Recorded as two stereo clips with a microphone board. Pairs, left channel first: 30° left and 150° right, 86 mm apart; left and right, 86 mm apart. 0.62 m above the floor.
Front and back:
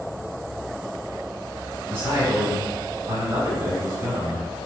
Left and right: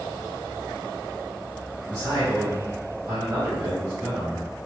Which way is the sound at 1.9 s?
110° right.